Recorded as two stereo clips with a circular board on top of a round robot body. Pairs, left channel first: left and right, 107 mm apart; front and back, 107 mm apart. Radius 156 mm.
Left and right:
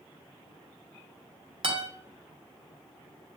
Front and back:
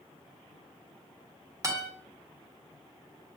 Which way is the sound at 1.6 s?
120° right.